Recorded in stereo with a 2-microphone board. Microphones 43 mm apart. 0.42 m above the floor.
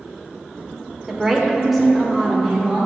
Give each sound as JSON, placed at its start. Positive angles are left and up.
{"t": 1.1, "sound": "a woman speaking", "side_deg": -5, "distance_m": 0.9}